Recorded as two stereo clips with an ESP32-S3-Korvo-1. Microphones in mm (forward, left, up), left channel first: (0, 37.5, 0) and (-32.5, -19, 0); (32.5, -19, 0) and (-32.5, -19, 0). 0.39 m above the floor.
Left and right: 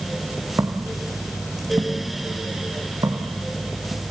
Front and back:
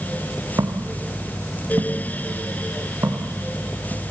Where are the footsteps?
155° right, 4.5 m; by 4.0 s 125° right, 7.5 m.